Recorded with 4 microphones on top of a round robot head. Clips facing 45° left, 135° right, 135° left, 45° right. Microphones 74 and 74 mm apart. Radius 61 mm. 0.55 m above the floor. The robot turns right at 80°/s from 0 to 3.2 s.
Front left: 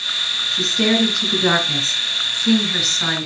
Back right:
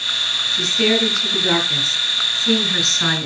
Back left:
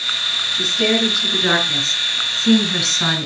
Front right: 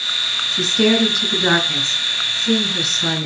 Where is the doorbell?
No doorbell in this recording.